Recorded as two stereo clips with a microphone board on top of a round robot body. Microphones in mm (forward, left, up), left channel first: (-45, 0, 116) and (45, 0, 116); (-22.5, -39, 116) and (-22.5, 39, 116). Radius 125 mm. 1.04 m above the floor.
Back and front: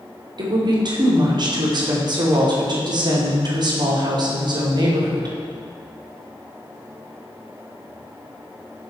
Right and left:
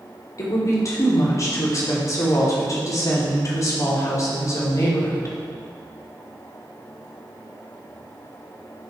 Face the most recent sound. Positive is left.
turn(degrees=-40)